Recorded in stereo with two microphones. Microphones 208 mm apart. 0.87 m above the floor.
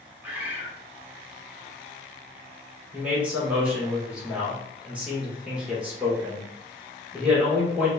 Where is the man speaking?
5° right (ahead or behind), 2 m.